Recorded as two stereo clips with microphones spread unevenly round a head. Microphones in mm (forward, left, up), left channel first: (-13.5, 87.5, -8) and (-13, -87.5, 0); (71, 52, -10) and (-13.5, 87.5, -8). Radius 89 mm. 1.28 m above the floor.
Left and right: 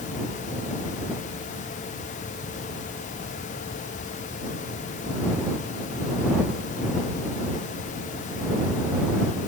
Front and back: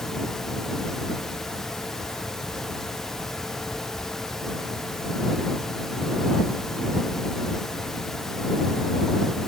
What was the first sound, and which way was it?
Only background noise.